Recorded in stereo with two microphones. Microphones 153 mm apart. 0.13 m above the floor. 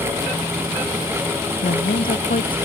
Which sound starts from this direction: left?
A woman speaking, at 1.6 s.